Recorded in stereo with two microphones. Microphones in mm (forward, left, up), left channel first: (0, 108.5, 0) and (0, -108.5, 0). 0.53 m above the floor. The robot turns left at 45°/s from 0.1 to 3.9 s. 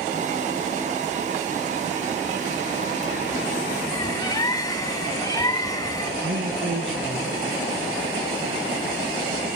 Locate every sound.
3.9 s a bird: 20° left (ahead or behind), 1.1 m
6.2 s a man speaking: 65° right (ahead or behind), 5.5 m